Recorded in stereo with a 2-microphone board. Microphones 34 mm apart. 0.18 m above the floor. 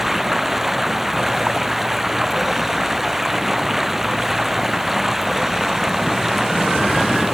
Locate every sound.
0.0 s running water: 5° right (ahead or behind)